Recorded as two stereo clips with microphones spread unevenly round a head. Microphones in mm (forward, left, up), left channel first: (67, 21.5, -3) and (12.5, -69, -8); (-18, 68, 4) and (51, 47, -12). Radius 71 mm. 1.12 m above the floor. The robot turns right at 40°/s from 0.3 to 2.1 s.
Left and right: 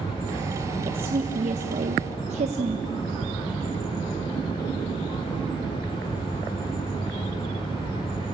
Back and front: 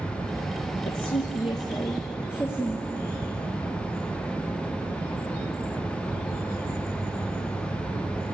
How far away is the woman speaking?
About 1.1 m.